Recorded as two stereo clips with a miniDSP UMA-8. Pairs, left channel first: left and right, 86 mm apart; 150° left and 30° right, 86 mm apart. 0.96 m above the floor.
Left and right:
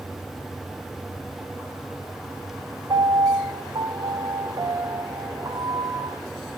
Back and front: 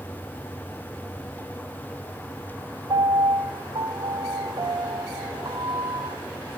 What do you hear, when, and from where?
2.9 s a piano: 55° right, 0.5 m